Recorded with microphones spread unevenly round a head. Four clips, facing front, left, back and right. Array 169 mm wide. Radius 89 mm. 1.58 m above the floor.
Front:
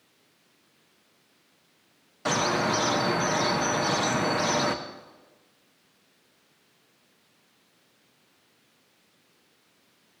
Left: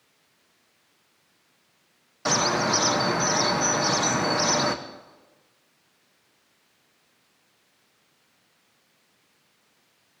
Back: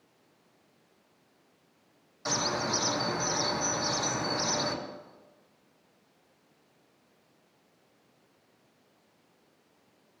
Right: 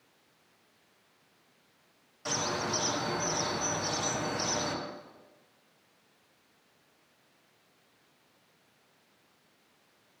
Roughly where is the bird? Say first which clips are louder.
Left 9 dB, front 6 dB; ahead left.